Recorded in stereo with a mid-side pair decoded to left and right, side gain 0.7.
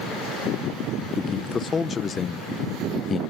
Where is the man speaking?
25° left, 0.9 m.